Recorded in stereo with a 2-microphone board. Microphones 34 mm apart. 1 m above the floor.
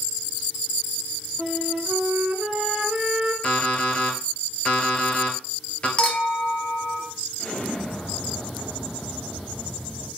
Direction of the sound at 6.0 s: 35° left (ahead or behind).